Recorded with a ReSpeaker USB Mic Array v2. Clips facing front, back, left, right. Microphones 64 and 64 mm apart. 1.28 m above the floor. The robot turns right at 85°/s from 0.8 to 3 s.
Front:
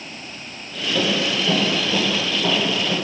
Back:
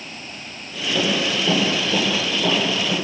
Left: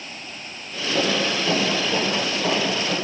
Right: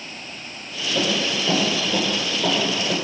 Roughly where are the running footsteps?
Left.